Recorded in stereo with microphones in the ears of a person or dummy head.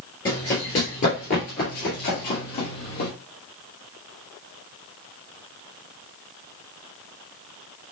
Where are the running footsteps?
15° left (ahead or behind), 1.9 m; by 3.1 s 40° left (ahead or behind), 2.5 m.